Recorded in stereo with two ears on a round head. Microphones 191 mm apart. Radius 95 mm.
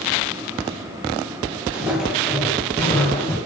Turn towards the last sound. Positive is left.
turn(degrees=15)  # may be behind; listen again after turning